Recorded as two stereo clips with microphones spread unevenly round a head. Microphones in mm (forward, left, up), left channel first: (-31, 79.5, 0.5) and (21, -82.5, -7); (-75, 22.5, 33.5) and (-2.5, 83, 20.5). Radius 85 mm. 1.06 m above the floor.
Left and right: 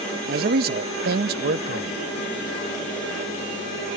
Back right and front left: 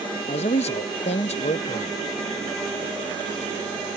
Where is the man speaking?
105° right.